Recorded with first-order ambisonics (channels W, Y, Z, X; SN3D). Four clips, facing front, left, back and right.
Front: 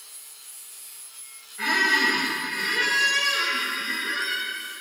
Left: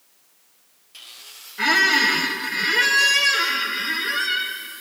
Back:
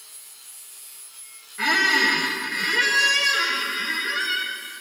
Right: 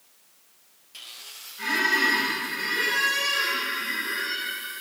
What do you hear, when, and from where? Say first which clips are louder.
1.6 s a squeak: left 6 dB, back 2 dB; 115° left, 1.2 m